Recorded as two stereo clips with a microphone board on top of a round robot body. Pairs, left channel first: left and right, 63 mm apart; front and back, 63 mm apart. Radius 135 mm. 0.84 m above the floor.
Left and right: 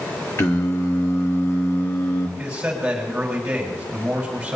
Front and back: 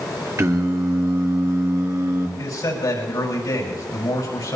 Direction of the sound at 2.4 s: 15° right.